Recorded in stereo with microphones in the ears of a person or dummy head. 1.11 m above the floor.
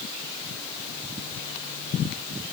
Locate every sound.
Only background noise.